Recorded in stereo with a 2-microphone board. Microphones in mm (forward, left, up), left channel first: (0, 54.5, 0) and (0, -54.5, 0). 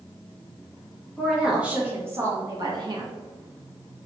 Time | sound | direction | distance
1.2 | a woman speaking | centre (ahead or behind) | 1.5 m